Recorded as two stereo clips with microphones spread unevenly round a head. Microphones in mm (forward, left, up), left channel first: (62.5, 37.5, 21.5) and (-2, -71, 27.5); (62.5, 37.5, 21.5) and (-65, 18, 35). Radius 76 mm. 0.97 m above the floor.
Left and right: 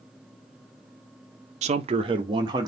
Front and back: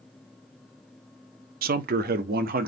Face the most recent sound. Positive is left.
turn(degrees=175)